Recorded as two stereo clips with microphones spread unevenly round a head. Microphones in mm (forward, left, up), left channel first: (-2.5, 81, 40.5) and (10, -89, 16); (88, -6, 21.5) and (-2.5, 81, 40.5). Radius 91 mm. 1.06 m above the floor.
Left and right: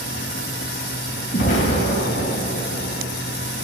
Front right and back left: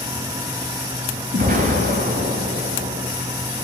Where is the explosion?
145° left, 3 m.